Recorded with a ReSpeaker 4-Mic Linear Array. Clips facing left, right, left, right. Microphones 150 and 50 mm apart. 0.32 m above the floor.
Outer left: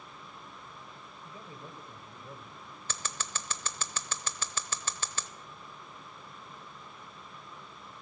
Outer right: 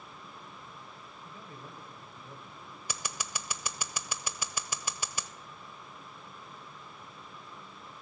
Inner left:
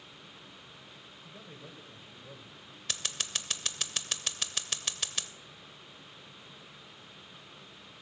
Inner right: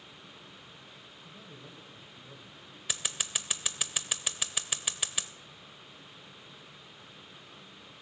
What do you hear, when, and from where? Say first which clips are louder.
1.2 s a man speaking: outer left 1 dB, inner left 1 dB; 30° left (ahead or behind), 1.7 m
2.9 s scissors: even, inner right 1 dB; 10° right (ahead or behind), 0.6 m